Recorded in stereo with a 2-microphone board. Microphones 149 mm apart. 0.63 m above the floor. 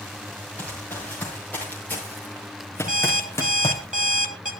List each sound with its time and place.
0.6 s running footsteps: 10° left (ahead or behind), 6 m; by 3.8 s 20° left (ahead or behind), 2.5 m
2.9 s an alarm clock: 65° right (ahead or behind), 2 m